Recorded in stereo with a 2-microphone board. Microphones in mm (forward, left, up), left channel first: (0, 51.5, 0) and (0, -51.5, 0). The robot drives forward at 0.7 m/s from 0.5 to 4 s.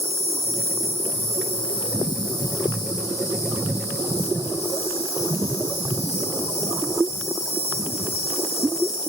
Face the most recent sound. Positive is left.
turn(degrees=25)  # may be behind; listen again after turning